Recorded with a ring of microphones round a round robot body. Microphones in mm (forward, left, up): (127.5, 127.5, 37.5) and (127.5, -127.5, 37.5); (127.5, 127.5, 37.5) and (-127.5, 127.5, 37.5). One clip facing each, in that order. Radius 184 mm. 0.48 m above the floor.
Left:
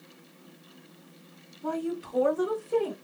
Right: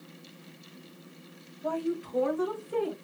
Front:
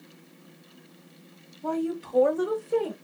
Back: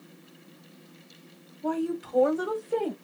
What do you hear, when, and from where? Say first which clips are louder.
1.6 s a woman speaking: even, even; 100° left, 2 m; by 2.9 s 85° left, 2.5 m